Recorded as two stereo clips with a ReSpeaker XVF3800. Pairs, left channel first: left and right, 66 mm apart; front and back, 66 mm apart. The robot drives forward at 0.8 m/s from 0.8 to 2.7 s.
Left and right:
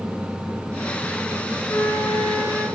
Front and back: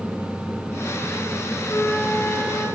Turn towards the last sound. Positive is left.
turn(degrees=60)